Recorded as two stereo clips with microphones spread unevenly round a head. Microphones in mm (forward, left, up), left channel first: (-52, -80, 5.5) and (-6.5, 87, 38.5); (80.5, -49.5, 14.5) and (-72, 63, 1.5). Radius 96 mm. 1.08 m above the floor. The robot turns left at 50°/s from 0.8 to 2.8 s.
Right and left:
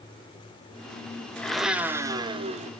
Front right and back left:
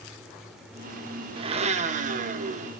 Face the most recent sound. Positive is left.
turn(degrees=115)